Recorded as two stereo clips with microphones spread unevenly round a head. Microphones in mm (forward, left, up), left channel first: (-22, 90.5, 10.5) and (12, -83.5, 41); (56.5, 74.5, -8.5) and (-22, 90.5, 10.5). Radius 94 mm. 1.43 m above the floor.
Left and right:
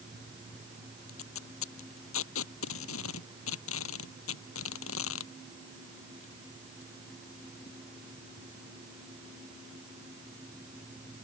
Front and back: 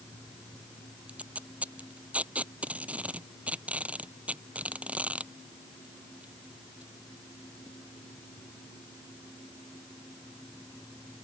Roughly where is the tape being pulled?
Left.